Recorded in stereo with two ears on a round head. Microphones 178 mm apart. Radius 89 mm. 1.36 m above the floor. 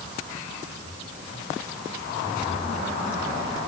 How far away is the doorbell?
No doorbell in this recording.